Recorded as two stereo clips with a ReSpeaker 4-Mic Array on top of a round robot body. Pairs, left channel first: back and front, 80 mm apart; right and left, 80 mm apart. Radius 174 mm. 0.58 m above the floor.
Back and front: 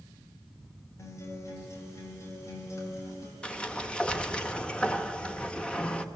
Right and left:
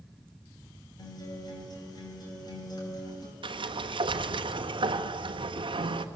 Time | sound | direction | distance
1.0 | a guitar | 125° right | 4.5 m
3.4 | a sliding door | 100° left | 1.0 m